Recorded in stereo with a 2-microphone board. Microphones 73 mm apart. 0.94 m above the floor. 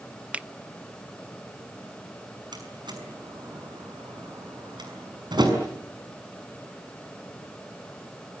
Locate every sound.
0.3 s a finger snap: 15° right (ahead or behind), 0.5 m
2.5 s a door slam: 75° right (ahead or behind), 6 m